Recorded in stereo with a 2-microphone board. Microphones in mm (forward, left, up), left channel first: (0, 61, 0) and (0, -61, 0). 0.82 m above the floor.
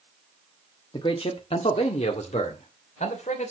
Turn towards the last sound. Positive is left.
turn(degrees=75)  # may be behind; listen again after turning